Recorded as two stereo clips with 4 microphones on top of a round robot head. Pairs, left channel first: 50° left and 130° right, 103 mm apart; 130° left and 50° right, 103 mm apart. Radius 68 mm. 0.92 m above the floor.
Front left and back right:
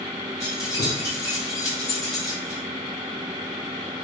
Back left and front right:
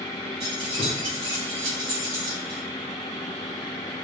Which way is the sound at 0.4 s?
10° right.